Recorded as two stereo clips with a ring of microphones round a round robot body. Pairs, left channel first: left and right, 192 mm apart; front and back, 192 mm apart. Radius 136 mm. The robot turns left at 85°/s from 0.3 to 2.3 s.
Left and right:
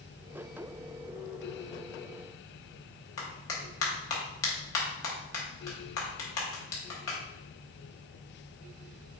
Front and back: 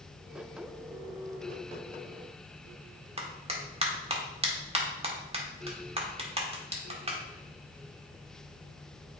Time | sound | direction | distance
3.2 | a clap | 120° left | 1.7 m